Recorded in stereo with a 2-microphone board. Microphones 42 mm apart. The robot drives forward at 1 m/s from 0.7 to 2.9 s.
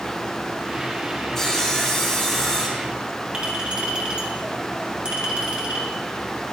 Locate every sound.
1.4 s sawing: 10° left (ahead or behind), 2.5 m; by 2.9 s 5° left (ahead or behind), 4 m
3.3 s a clink: 25° right (ahead or behind), 3 m